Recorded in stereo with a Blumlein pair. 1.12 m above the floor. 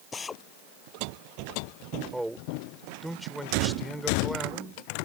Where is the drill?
15° left.